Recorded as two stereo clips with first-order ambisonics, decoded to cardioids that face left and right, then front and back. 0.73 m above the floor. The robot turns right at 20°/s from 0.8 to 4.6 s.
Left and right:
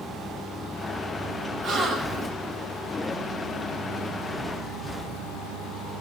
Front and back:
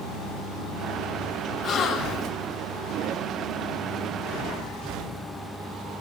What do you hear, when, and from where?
1.6 s a gasp: 45° right, 1.2 m; by 2.3 s 30° right, 1.2 m